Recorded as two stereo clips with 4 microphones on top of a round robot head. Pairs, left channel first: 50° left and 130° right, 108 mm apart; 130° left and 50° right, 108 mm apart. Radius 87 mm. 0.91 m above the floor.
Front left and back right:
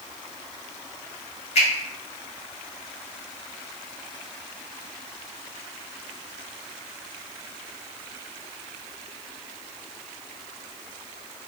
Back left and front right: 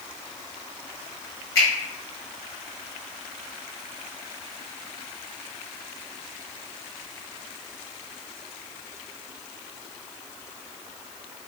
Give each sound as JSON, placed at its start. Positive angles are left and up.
{"t": 1.6, "sound": "a finger snap", "azimuth_deg": 70, "distance_m": 1.5}